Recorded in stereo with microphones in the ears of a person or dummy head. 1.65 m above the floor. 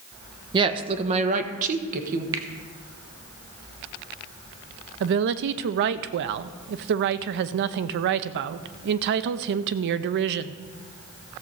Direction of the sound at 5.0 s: 60° right (ahead or behind).